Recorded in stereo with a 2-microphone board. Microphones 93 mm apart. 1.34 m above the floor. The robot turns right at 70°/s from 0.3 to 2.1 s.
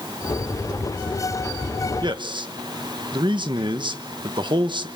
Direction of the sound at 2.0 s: 50° right (ahead or behind).